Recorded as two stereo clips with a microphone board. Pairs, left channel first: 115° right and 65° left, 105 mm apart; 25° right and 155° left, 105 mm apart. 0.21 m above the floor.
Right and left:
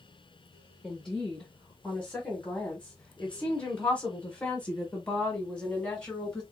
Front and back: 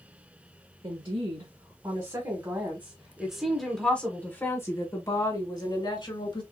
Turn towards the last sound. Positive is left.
turn(degrees=-35)